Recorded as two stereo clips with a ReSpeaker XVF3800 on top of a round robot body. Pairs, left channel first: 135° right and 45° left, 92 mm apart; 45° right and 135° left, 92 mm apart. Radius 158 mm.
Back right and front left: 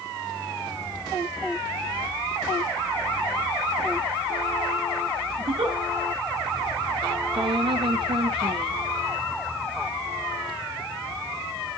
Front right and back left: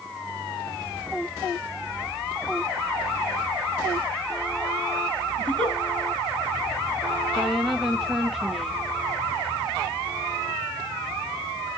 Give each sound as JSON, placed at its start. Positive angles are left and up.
{"t": 5.4, "sound": "a giggle", "azimuth_deg": 30, "distance_m": 2.5}
{"t": 7.3, "sound": "a woman speaking", "azimuth_deg": 45, "distance_m": 1.0}